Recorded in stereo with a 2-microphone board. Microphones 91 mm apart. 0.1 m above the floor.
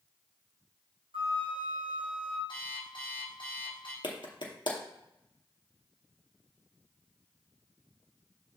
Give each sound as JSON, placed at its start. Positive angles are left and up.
{"t": 1.1, "sound": "a flute", "side_deg": -70, "distance_m": 1.5}
{"t": 2.5, "sound": "an alarm clock", "side_deg": 65, "distance_m": 3.0}
{"t": 4.0, "sound": "a clap", "side_deg": 60, "distance_m": 2.0}